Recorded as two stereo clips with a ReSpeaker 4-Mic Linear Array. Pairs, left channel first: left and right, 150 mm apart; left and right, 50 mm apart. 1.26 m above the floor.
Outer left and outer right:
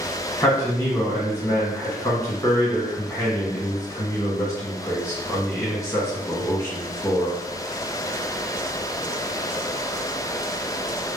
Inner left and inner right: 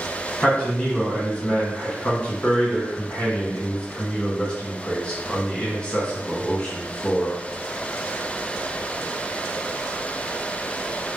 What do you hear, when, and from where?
0.4 s a man speaking: 20° left (ahead or behind), 1.3 m